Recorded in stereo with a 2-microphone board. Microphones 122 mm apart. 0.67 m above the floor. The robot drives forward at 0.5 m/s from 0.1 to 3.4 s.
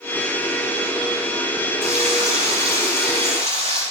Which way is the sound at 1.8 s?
70° right (ahead or behind).